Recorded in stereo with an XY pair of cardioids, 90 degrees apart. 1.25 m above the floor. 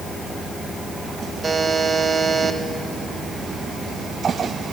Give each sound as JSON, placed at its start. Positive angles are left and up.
{"t": 1.4, "sound": "a buzzer", "azimuth_deg": -35, "distance_m": 1.9}